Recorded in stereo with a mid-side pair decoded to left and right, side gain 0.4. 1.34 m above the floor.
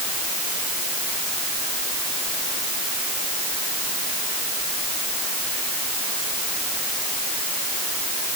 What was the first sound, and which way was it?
Only background noise.